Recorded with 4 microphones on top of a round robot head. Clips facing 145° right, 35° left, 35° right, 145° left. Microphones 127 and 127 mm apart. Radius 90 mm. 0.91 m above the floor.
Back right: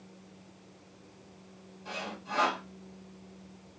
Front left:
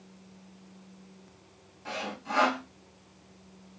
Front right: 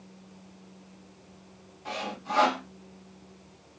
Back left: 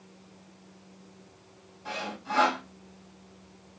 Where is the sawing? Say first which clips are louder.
Front left 4 dB, front right 1 dB; 40° left, 1.5 m.